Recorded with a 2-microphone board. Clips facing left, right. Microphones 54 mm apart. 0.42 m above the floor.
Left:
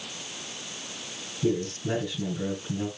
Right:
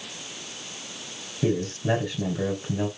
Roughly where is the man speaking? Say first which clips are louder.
Right 2 dB; right.